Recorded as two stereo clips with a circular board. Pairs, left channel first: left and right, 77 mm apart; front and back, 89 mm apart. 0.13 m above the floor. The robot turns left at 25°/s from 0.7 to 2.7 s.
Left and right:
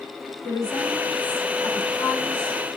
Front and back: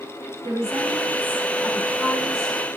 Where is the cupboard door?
No cupboard door in this recording.